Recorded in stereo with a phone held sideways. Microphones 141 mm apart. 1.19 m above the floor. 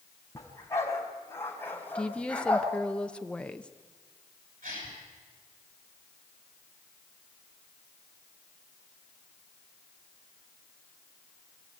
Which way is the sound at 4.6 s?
75° right (ahead or behind).